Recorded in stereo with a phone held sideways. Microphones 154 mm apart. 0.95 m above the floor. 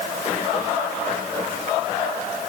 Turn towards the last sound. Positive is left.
No sound to turn to.